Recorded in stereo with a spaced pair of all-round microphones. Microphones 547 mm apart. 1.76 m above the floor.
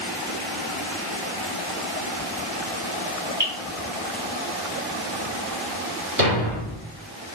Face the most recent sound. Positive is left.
turn(degrees=-35)  # may be behind; listen again after turning